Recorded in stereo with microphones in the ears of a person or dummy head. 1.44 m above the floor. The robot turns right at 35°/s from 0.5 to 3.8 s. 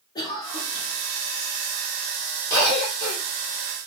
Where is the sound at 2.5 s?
30° left (ahead or behind), 1.3 m; by 3.2 s 55° left (ahead or behind), 1.3 m.